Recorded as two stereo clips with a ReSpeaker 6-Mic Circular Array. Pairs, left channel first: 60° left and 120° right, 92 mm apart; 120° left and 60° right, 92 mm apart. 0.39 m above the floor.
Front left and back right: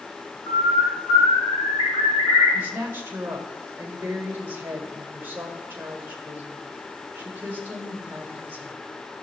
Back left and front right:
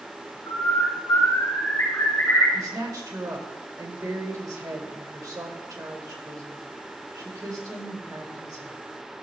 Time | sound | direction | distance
0.5 | a bird | 75° left | 3.5 m
2.5 | a woman speaking | 70° right | 1.7 m